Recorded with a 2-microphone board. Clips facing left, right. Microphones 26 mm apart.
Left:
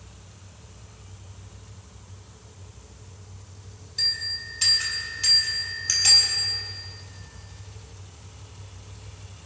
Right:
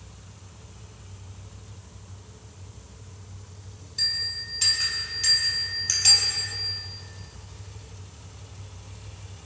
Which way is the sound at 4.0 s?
10° left (ahead or behind).